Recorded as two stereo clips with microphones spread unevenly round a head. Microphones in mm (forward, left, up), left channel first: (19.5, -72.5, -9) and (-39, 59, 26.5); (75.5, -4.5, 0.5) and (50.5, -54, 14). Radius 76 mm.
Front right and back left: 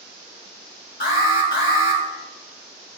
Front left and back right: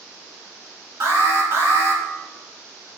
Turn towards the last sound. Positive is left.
turn(degrees=-90)